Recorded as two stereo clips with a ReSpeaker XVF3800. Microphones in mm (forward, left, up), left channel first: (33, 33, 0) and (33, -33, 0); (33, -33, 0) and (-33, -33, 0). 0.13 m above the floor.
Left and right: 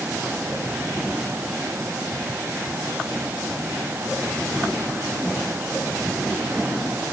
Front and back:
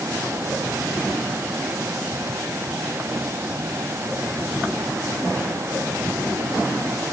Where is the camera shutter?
No camera shutter in this recording.